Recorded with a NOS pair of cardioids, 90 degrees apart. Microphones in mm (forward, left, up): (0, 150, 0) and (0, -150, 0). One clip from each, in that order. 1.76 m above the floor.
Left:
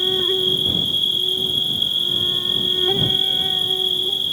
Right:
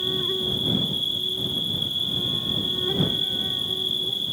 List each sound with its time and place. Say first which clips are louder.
0.0 s an insect: left 6 dB; 50° left